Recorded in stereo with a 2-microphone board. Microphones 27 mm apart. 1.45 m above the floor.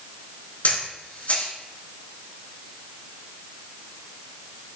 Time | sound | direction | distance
0.6 | a camera shutter | 65° left (ahead or behind) | 3 m